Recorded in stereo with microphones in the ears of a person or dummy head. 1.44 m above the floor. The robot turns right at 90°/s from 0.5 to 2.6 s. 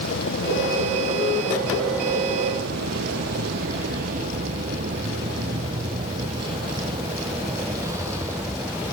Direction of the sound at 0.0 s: 65° left (ahead or behind).